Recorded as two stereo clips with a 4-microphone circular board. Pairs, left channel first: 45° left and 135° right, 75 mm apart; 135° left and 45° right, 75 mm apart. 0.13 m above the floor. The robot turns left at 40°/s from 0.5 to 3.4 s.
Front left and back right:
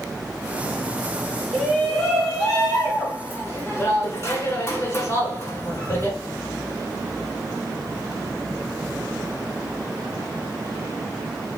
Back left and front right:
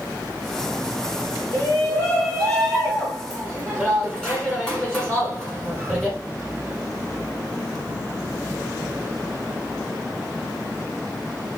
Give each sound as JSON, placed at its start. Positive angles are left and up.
{"t": 1.5, "sound": "a shout", "azimuth_deg": 140, "distance_m": 1.8}